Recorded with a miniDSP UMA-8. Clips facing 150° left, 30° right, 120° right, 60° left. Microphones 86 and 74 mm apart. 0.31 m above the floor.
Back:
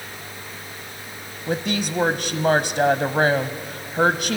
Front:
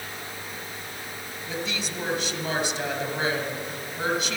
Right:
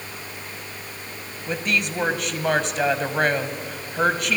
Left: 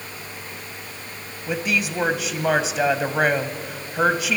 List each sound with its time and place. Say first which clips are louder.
1.5 s a woman speaking: back 8 dB, left 1 dB; 145° left, 1.4 m